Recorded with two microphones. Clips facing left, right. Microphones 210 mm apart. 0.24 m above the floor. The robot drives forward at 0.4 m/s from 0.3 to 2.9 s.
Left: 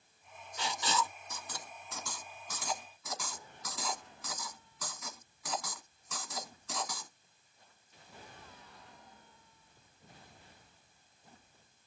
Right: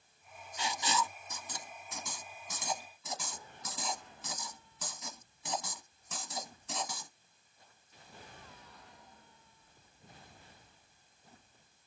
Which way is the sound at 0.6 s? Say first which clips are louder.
Even; 15° right (ahead or behind).